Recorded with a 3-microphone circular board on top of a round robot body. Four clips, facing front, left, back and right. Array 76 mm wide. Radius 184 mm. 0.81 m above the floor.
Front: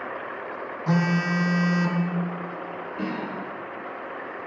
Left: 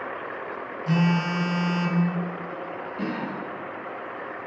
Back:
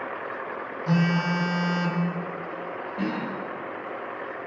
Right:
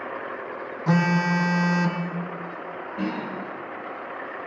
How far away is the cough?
About 6.5 m.